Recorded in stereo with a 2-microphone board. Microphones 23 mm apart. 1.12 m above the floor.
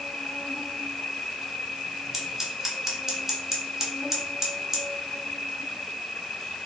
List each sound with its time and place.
0.0 s an insect: 70° left (ahead or behind), 0.7 m
2.1 s scissors: 20° right (ahead or behind), 0.6 m